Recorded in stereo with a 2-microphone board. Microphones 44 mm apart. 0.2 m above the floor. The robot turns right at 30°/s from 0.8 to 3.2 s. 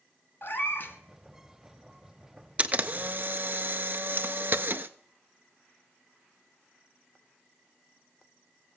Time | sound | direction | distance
0.4 | a cat meowing | 50° left (ahead or behind) | 1.2 m
2.6 | a camera shutter | 30° right (ahead or behind) | 0.5 m